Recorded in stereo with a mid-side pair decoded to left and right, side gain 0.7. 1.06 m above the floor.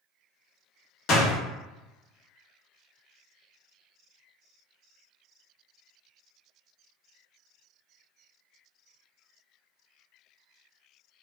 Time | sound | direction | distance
1.1 | a door slam | 55° left | 1.4 m